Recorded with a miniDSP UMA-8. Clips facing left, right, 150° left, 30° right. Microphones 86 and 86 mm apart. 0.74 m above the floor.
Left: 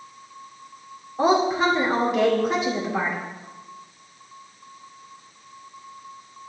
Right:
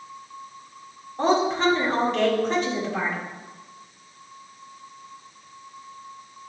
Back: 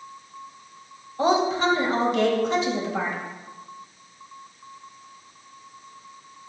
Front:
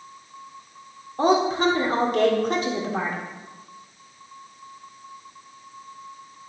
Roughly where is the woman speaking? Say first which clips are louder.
Left 2 dB, front 1 dB; ahead.